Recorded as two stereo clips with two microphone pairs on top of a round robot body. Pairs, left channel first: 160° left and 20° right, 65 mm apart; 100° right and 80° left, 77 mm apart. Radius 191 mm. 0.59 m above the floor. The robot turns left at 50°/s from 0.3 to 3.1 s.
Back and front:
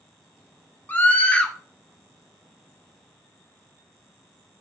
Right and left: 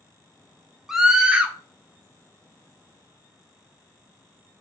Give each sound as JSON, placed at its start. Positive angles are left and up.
{"t": 0.9, "sound": "a scream", "azimuth_deg": 135, "distance_m": 0.6}